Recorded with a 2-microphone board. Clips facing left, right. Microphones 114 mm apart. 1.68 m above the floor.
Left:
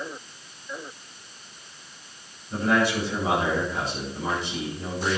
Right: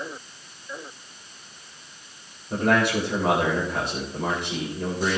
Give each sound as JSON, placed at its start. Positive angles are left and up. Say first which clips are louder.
{"t": 2.5, "sound": "a man speaking", "louder": "right 1 dB", "side_deg": -60, "distance_m": 8.5}